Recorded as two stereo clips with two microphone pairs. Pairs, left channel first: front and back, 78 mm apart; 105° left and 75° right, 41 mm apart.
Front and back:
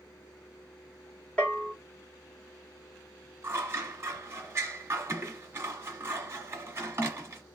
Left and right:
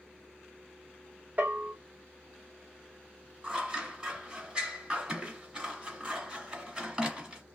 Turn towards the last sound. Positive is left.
turn(degrees=-135)